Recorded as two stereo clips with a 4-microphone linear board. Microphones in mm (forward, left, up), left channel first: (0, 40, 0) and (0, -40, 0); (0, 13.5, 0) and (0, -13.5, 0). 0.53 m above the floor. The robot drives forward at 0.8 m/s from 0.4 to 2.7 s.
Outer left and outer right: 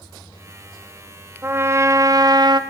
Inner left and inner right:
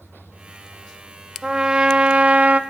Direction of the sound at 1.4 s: 30° right (ahead or behind).